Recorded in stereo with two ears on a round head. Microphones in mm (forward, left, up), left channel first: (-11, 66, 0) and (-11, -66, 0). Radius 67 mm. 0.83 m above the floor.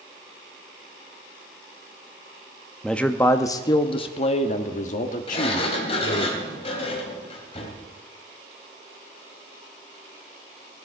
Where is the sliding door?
40° left (ahead or behind), 3 m.